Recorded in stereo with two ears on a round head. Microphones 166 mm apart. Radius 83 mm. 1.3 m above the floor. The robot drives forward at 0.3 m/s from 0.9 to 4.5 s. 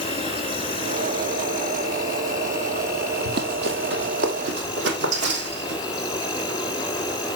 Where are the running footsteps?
55° right (ahead or behind), 2.5 m; by 5.8 s 60° right (ahead or behind), 4 m.